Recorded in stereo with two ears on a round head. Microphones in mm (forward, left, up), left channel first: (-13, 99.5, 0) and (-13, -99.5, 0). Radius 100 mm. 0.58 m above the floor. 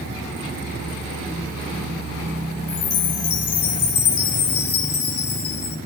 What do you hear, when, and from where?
2.7 s a chime: 70° left (ahead or behind), 2.5 m